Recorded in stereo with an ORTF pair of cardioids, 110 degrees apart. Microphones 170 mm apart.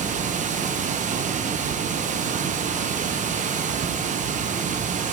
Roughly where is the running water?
Ahead right.